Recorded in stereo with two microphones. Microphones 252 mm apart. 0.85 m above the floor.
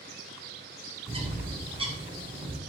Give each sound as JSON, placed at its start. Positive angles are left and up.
{"t": 1.1, "sound": "a bird", "side_deg": -20, "distance_m": 0.6}